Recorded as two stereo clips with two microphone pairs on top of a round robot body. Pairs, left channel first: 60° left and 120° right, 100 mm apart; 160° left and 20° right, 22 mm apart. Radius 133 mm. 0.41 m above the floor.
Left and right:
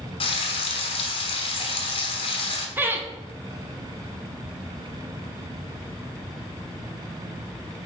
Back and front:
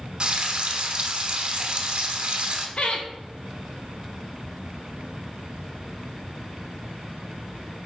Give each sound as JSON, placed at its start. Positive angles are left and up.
{"t": 0.2, "sound": "frying", "azimuth_deg": 25, "distance_m": 1.1}
{"t": 2.8, "sound": "laughter", "azimuth_deg": 180, "distance_m": 1.6}